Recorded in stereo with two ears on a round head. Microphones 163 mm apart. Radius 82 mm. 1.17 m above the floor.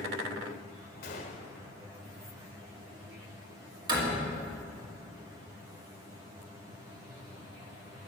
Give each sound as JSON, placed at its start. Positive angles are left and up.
{"t": 1.0, "sound": "a gunshot", "side_deg": 60, "distance_m": 1.5}
{"t": 3.9, "sound": "a door slam", "side_deg": -25, "distance_m": 2.0}